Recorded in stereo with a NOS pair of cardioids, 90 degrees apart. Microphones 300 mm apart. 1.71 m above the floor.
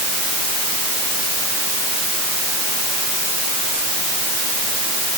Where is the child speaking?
I don't hear a child speaking.